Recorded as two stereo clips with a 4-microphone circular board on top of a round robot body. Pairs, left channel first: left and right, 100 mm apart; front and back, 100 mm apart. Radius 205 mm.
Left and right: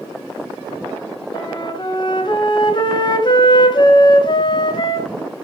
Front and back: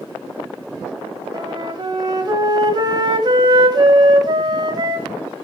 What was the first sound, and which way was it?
A flute, 130° left.